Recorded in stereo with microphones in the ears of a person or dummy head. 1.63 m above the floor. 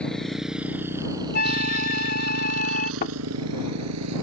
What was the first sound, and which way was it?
A motorcycle, 5° left (ahead or behind).